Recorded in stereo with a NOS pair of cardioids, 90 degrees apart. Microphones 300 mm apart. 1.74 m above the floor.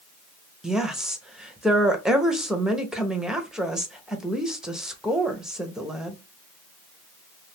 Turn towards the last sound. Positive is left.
turn(degrees=0)